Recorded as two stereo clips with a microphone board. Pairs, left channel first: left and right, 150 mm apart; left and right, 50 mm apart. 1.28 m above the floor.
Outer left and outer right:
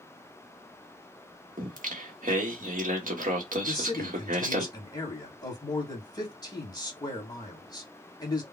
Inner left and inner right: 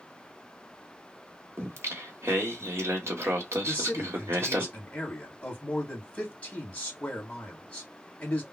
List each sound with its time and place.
1.6 s singing: 65° right (ahead or behind), 1.4 m
3.6 s a man speaking: 25° left (ahead or behind), 1.9 m